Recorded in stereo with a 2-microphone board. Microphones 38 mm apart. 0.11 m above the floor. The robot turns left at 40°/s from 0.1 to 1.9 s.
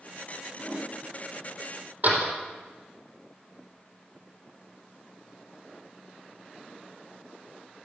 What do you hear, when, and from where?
0.6 s a whoosh: 5° left (ahead or behind), 8 m; by 0.9 s 10° right (ahead or behind), 8 m
2.0 s a door slam: 45° right (ahead or behind), 3.5 m